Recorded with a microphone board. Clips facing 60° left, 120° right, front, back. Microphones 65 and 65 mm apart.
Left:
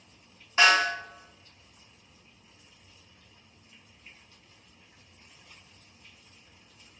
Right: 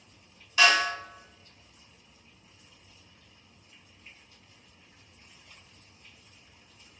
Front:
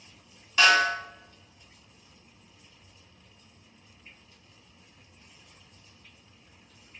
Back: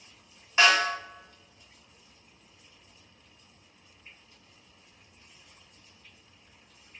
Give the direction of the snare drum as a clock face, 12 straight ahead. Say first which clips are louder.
Left 1 dB, front 1 dB; 8 o'clock.